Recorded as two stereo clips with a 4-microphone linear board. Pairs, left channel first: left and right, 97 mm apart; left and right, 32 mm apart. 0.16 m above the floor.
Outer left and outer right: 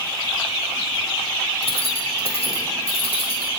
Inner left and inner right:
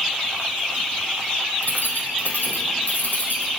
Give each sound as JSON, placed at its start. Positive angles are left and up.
{"t": 1.6, "sound": "keys jangling", "side_deg": 70, "distance_m": 4.0}